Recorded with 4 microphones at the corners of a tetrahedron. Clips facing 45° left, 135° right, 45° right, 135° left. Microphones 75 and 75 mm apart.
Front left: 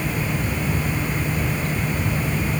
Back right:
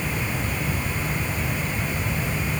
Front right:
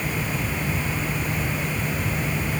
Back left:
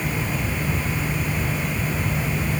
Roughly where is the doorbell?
No doorbell in this recording.